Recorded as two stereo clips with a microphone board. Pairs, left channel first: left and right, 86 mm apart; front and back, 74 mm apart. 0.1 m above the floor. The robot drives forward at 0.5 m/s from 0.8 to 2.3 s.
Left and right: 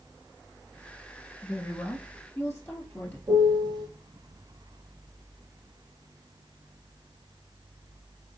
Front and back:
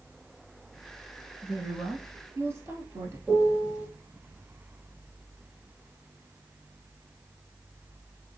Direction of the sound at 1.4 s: 140° left.